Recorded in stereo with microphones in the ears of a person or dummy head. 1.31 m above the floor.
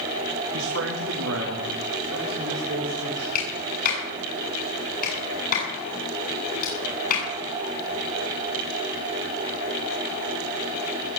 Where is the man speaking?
70° right (ahead or behind), 1.7 m; by 3.2 s 80° right, 4 m.